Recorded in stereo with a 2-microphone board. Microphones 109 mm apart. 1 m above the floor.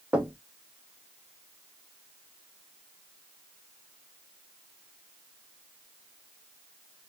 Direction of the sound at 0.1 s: 10° right (ahead or behind).